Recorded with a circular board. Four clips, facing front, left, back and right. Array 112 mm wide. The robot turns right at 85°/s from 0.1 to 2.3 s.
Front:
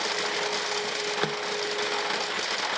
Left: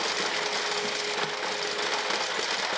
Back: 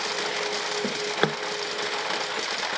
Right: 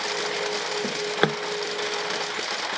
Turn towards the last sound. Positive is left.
turn(degrees=-30)